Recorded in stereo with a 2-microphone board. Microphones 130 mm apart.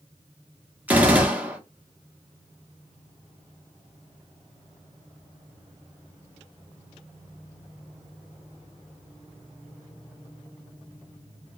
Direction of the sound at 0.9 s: 15° right (ahead or behind).